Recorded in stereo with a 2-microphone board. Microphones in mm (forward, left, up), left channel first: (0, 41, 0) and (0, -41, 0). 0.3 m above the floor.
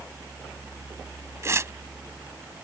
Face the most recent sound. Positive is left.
turn(degrees=-35)  # may be behind; listen again after turning